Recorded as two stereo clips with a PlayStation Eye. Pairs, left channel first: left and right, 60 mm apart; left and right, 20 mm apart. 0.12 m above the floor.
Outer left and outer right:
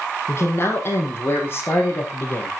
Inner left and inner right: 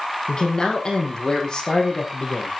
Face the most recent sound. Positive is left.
turn(degrees=35)  # may be behind; listen again after turning